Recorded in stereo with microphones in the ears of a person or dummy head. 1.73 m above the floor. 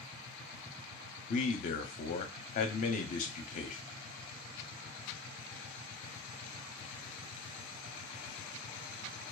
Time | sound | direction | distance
1.3 | a man speaking | 45° left (ahead or behind) | 0.5 m